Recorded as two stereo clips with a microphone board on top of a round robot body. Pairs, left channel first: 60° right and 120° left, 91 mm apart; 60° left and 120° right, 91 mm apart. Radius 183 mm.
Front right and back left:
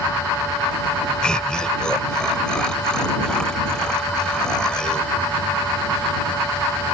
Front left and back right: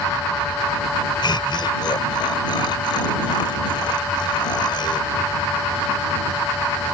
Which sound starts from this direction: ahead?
Laughter, at 1.2 s.